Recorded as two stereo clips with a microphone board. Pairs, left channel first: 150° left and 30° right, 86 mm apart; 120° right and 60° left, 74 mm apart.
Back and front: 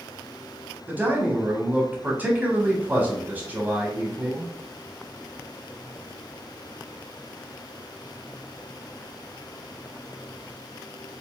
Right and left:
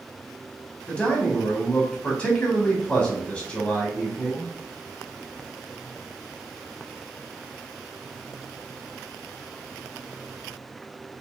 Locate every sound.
0.9 s a man speaking: 65° right, 1.0 m